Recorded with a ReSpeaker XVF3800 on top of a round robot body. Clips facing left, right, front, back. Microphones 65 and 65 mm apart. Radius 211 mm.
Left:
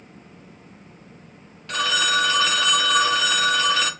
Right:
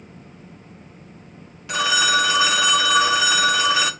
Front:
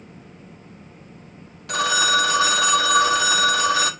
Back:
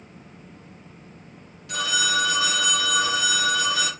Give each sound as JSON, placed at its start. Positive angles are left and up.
{"t": 1.7, "sound": "a phone ringing", "azimuth_deg": -15, "distance_m": 0.6}